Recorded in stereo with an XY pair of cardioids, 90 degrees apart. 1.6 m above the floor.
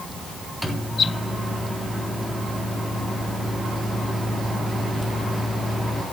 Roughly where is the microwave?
Ahead.